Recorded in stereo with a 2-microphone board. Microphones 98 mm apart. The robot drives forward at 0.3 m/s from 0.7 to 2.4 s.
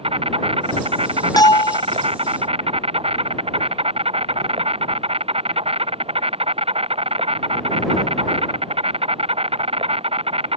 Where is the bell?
40° left (ahead or behind); by 1.8 s 50° left (ahead or behind).